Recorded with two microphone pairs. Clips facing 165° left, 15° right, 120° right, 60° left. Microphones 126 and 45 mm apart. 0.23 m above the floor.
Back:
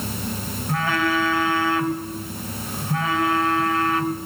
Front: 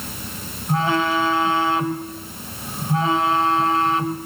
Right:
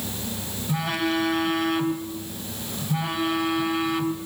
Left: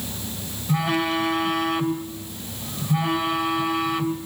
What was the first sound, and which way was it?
A phone buzzing, 25° right.